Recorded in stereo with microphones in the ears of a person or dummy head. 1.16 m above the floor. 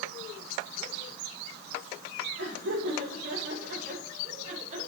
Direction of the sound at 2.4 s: 85° right.